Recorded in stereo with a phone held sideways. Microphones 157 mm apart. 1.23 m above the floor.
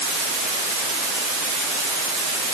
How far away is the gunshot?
No gunshot in this recording.